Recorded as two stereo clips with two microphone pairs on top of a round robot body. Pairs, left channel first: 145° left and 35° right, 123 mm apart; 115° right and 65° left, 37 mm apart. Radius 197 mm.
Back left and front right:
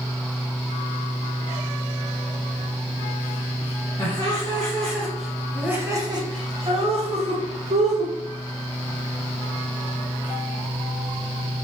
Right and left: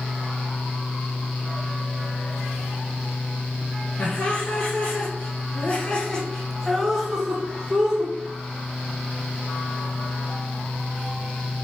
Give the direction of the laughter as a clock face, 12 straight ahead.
5 o'clock.